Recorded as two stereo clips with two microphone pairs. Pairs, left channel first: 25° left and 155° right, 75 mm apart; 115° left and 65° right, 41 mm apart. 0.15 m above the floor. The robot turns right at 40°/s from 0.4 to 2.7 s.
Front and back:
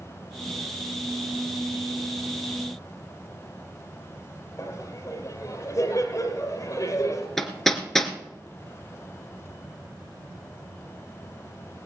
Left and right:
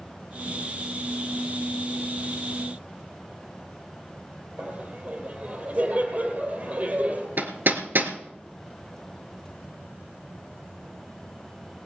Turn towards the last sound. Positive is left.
turn(degrees=-65)